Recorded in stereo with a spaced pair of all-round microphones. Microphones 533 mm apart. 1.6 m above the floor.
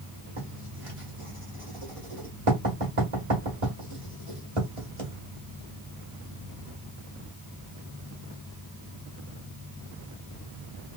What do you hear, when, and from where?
0.4 s writing: 70° right (ahead or behind), 2.5 m